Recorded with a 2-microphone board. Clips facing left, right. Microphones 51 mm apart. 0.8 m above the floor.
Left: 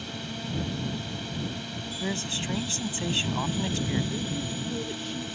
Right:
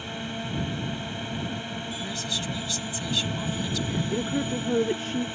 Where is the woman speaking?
50° right (ahead or behind).